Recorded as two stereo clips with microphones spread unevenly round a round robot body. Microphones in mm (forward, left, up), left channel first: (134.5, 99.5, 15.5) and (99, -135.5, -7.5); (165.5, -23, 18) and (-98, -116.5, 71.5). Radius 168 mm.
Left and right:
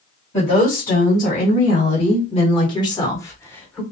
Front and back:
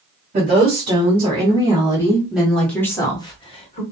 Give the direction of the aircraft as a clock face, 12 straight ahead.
No aircraft in this recording.